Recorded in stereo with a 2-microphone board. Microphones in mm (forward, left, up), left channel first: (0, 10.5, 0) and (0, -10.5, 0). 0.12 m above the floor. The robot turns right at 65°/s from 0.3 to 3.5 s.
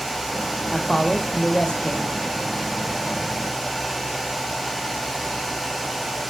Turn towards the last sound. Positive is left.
turn(degrees=-165)